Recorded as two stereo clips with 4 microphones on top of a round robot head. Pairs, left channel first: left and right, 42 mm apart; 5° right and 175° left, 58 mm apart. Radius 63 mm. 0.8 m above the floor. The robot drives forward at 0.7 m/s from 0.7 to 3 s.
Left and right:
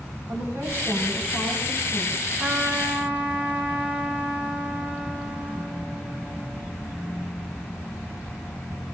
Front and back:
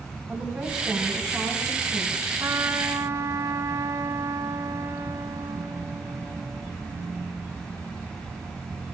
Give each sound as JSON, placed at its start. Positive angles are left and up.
{"t": 0.3, "sound": "a woman speaking", "azimuth_deg": -85, "distance_m": 5.5}
{"t": 2.4, "sound": "a trumpet", "azimuth_deg": -140, "distance_m": 3.0}